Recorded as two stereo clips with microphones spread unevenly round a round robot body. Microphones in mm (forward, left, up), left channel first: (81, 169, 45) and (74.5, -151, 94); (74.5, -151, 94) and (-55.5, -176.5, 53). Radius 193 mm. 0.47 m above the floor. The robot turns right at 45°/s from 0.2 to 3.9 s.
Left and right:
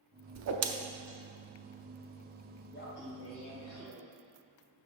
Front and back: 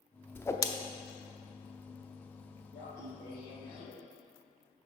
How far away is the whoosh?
About 0.7 m.